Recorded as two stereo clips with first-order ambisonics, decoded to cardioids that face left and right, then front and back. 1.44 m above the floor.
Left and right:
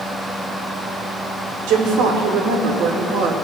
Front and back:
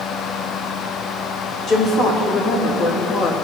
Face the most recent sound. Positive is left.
turn(degrees=-45)